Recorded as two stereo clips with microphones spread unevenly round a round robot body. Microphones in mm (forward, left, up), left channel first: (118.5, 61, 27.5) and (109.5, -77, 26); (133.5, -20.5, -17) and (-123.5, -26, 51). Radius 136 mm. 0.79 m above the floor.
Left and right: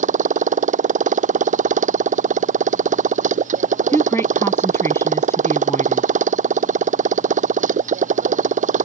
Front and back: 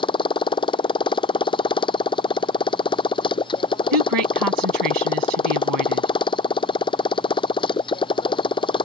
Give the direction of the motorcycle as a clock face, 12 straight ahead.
2 o'clock.